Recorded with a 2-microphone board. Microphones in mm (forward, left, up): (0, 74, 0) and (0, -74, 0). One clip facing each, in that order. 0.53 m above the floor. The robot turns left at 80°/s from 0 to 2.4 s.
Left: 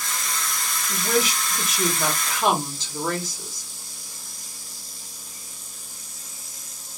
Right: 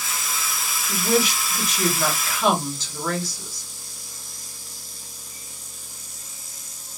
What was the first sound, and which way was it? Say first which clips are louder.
A woman speaking: right 2 dB; 20° right (ahead or behind).